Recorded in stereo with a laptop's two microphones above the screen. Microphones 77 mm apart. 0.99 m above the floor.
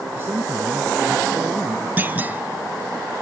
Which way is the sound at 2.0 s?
25° right (ahead or behind).